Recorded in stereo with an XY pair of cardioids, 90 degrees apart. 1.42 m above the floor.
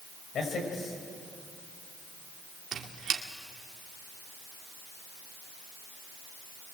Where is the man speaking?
65° left, 6.5 m.